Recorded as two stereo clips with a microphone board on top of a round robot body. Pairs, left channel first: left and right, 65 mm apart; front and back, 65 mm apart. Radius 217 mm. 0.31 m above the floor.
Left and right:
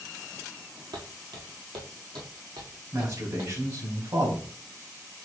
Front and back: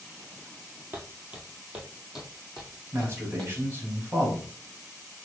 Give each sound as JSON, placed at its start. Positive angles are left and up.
{"t": 0.9, "sound": "footsteps", "azimuth_deg": -115, "distance_m": 0.7}
{"t": 2.9, "sound": "a man speaking", "azimuth_deg": -125, "distance_m": 2.5}